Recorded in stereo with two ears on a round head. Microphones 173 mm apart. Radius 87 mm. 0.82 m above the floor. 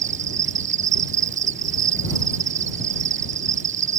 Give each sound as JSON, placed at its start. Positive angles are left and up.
{"t": 0.0, "sound": "an insect", "side_deg": -40}